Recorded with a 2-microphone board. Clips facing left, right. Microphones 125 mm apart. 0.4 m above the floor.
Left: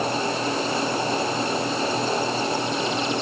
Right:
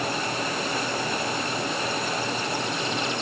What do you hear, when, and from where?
Only background noise.